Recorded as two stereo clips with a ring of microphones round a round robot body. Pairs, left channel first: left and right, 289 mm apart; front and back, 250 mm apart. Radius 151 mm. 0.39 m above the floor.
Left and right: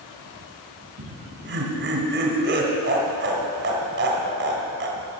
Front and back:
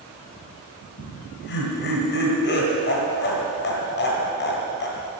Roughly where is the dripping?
I don't hear dripping.